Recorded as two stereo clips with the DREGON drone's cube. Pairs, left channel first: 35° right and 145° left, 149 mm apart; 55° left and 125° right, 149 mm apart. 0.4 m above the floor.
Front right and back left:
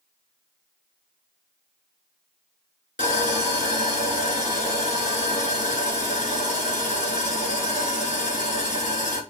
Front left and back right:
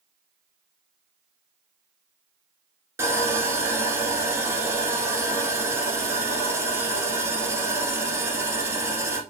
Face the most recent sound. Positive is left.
turn(degrees=-50)